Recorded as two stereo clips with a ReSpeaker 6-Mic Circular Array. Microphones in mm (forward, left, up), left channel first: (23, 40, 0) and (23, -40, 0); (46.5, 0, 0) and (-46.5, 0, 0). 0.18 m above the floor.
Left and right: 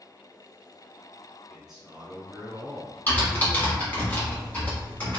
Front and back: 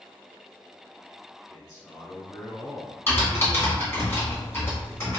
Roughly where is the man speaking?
Ahead.